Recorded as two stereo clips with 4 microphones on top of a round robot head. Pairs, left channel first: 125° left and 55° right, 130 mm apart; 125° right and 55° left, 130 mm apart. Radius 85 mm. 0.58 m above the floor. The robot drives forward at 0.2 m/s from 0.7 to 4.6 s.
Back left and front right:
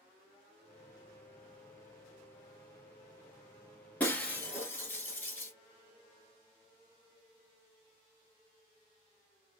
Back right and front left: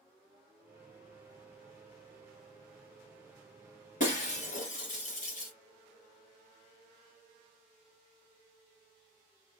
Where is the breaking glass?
160° right, 1.5 m.